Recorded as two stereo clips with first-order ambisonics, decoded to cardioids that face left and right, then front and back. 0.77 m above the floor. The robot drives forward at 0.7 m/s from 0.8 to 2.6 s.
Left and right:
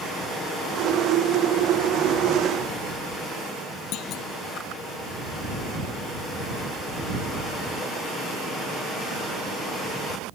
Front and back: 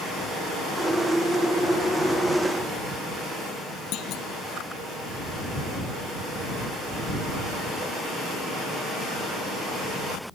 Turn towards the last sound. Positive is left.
turn(degrees=45)